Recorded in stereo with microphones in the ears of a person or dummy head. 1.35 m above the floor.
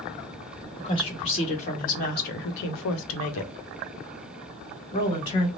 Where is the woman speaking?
30° left (ahead or behind), 1.8 m.